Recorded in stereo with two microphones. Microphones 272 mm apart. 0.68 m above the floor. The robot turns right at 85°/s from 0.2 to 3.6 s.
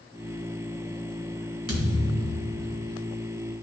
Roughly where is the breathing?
I don't hear breathing.